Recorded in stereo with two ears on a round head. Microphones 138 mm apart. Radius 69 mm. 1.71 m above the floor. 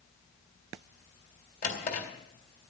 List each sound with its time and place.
1.6 s a drawer: 60° left (ahead or behind), 3 m